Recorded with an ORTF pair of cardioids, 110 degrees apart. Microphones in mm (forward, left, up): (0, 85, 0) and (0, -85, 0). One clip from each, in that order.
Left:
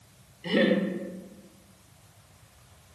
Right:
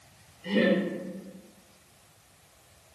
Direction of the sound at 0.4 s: 40° left.